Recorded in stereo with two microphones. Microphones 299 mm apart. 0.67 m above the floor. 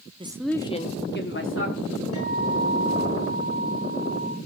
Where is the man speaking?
20° right (ahead or behind), 0.5 m; by 2.0 s 45° left (ahead or behind), 1.5 m.